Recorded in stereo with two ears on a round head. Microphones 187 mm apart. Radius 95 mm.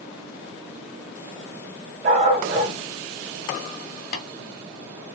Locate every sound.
2.0 s a dog barking: 40° right (ahead or behind), 2.5 m
4.1 s tapping: 45° left (ahead or behind), 1.8 m